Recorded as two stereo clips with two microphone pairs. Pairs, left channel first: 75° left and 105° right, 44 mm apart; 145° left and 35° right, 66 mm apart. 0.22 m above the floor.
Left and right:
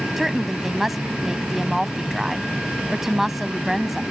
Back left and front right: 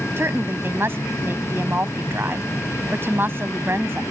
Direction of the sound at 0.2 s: 20° right.